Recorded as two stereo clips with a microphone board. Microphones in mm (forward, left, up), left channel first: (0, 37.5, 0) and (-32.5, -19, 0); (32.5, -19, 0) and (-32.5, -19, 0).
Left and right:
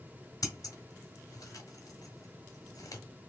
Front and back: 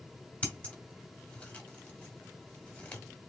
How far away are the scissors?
About 1.5 m.